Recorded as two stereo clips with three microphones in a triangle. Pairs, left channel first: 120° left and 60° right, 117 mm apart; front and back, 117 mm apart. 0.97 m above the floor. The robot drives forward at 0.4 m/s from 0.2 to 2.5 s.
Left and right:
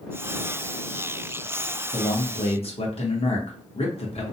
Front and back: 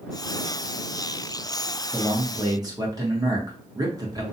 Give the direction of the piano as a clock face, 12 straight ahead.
No piano in this recording.